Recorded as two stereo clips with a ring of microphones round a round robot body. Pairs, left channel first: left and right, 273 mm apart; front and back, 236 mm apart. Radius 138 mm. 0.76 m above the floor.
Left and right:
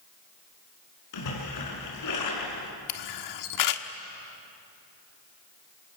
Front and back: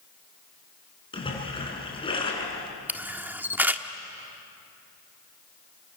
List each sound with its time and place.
1.1 s a splash: 70° left, 6 m
2.9 s a camera shutter: 95° left, 1.4 m